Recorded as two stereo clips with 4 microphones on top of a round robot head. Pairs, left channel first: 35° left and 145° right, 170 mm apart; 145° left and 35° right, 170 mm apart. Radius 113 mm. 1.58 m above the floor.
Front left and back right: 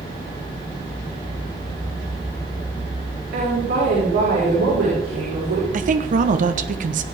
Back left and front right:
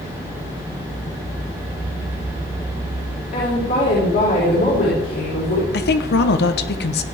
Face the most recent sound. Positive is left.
turn(degrees=170)